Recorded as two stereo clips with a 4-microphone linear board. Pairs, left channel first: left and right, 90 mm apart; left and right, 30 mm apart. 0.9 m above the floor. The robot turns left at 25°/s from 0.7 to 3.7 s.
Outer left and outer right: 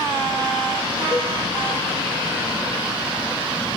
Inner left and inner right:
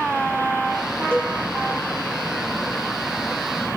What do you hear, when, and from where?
1.1 s a cowbell: 35° left (ahead or behind), 4.5 m; by 1.4 s 30° left (ahead or behind), 4.5 m